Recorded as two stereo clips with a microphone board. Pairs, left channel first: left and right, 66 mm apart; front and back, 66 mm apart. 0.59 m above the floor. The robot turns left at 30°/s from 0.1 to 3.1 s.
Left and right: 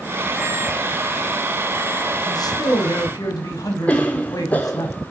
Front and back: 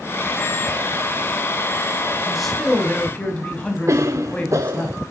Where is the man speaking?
95° left, 4 m; by 4.9 s 70° left, 4 m.